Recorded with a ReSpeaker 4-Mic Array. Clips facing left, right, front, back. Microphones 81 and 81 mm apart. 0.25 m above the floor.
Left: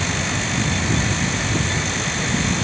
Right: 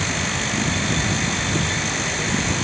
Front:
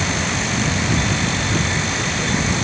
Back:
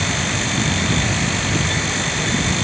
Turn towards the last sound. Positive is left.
No sound to turn to.